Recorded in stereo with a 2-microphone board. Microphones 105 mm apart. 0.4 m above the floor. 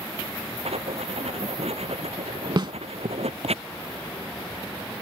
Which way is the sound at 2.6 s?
50° right (ahead or behind).